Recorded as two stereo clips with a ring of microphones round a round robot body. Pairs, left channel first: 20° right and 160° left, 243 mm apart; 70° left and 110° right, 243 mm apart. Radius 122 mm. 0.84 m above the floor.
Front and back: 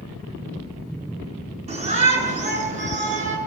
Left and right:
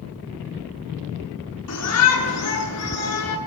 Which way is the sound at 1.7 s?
90° left.